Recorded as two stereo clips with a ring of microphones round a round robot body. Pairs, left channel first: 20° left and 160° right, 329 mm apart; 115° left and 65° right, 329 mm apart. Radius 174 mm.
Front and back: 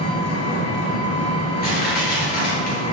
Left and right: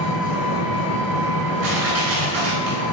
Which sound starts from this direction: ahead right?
Crushing, at 1.6 s.